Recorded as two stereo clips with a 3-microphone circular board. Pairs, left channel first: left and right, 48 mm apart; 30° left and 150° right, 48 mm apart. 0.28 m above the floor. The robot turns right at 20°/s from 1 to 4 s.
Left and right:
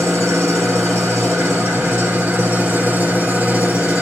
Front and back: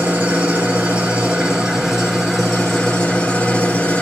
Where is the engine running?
85° right, 3 m; by 4.0 s 25° right, 3 m.